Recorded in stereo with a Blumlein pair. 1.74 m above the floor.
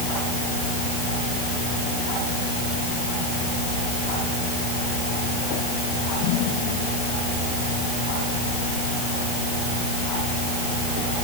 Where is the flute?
I don't hear a flute.